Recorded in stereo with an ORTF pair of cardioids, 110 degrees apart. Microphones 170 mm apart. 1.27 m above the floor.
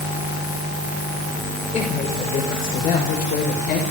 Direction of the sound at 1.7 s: 40° left.